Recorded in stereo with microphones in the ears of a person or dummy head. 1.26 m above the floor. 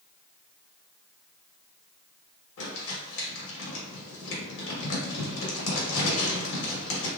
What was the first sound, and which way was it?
Crumpling, 80° left.